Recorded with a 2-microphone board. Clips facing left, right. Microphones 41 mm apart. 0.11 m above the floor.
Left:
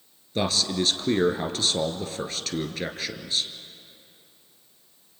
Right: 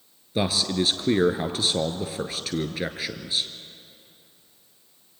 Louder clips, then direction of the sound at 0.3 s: Right 1 dB; 10° right (ahead or behind).